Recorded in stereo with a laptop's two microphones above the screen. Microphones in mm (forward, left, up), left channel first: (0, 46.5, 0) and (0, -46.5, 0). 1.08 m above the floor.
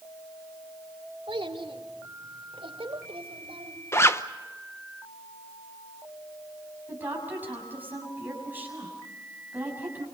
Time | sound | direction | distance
1.3 | a child speaking | 65° right (ahead or behind) | 2 m
3.9 | a zipper | 30° left (ahead or behind) | 0.8 m
6.9 | a woman speaking | 20° right (ahead or behind) | 7 m